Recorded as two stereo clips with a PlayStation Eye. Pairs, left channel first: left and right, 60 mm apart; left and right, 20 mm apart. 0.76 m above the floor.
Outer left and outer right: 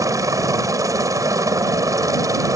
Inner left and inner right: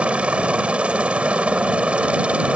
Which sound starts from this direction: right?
A helicopter, at 0.0 s.